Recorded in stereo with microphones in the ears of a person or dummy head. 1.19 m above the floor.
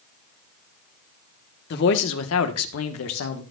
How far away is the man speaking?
About 1.2 m.